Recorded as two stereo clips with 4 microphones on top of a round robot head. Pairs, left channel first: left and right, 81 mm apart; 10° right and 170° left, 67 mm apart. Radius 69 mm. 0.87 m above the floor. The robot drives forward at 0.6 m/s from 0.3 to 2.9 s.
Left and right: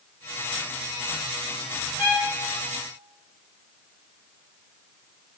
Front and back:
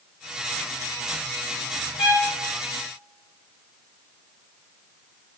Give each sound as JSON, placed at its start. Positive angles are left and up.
{"t": 2.0, "sound": "a violin", "azimuth_deg": -10, "distance_m": 1.8}